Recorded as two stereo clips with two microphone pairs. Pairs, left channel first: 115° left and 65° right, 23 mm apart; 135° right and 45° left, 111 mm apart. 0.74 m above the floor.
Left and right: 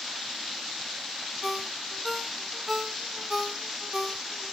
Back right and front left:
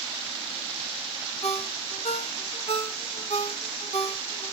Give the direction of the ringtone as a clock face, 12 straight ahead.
5 o'clock.